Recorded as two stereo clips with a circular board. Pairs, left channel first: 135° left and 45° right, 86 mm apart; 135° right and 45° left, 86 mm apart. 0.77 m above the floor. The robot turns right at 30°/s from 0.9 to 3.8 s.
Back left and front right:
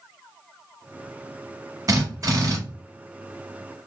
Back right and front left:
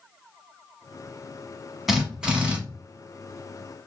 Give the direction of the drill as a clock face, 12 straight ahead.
2 o'clock.